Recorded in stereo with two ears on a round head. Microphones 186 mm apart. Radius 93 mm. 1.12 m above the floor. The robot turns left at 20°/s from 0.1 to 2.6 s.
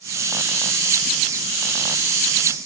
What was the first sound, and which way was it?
Only background noise.